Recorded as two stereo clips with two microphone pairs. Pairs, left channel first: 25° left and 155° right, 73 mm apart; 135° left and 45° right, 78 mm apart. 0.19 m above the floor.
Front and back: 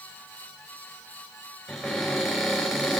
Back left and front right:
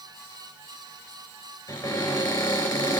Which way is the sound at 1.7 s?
120° left.